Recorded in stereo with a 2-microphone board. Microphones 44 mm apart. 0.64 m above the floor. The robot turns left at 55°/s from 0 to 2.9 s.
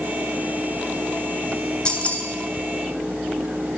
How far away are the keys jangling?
About 1.9 m.